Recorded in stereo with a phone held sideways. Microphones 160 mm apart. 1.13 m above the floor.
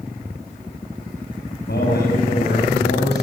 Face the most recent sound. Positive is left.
turn(degrees=85)